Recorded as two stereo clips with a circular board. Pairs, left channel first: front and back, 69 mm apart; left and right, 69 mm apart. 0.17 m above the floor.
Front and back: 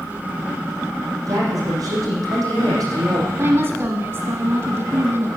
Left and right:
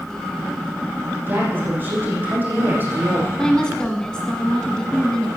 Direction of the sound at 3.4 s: 160° left.